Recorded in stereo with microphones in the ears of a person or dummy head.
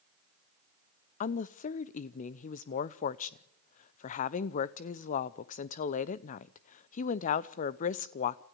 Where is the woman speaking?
45° left (ahead or behind), 0.7 m.